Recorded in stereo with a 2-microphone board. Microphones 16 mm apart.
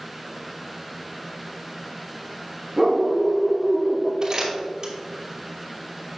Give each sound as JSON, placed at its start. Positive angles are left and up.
{"t": 2.8, "sound": "a dog barking", "side_deg": -10, "distance_m": 3.0}
{"t": 4.2, "sound": "crumpling", "side_deg": -35, "distance_m": 2.5}